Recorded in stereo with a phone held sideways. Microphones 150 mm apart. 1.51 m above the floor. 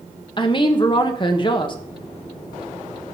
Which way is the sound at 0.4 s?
30° left (ahead or behind).